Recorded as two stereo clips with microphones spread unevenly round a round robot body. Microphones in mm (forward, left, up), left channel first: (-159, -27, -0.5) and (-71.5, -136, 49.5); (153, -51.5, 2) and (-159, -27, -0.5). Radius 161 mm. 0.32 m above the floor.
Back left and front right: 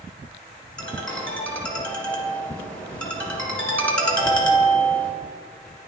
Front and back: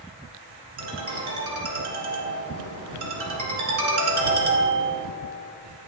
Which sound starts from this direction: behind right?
A ringtone, at 0.8 s.